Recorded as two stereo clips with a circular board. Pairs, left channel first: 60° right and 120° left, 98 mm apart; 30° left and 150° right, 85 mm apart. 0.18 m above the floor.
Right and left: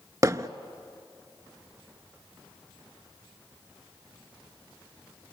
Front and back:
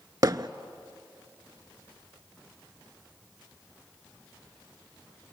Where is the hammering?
175° left, 0.6 m.